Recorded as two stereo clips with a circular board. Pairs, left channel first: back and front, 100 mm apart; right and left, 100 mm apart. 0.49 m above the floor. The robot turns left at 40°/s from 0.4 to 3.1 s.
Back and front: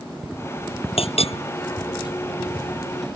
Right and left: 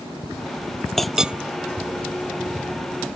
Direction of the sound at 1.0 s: 175° right.